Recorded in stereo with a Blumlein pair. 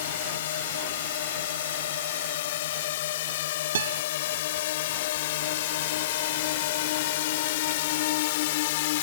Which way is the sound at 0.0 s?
55° left.